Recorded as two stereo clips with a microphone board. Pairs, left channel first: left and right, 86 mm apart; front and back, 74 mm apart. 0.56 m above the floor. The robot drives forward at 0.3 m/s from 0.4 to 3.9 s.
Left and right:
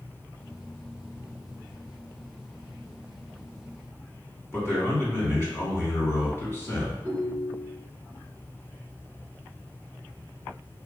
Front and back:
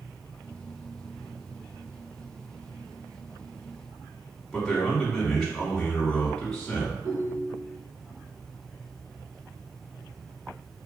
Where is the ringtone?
155° right, 1.1 m.